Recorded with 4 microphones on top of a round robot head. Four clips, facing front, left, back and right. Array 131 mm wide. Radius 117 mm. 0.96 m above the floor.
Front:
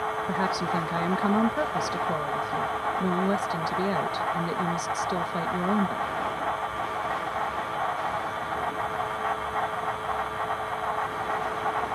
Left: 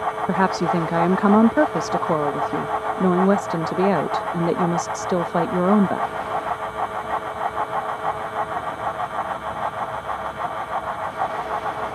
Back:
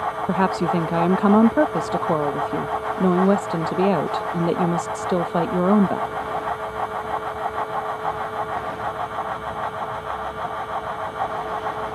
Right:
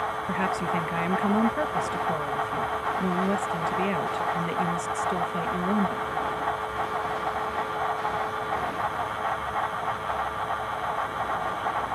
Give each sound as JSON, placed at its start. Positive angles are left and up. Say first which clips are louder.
{"t": 0.3, "sound": "a woman speaking", "louder": "left 8 dB, back 9 dB", "azimuth_deg": 130}